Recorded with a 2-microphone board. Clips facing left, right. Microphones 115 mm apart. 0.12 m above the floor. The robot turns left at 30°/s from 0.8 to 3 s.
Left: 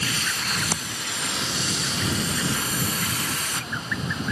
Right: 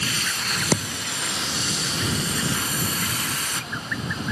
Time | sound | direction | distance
0.7 | a thud | 75° right (ahead or behind) | ?